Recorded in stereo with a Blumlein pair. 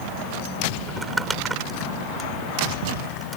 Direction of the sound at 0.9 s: 10° right.